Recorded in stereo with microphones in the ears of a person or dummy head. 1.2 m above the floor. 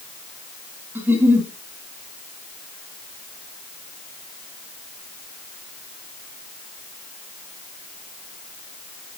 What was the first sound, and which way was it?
A giggle, 10° right (ahead or behind).